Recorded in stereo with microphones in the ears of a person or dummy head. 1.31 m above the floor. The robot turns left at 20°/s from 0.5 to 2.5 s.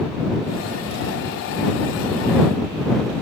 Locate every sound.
Only background noise.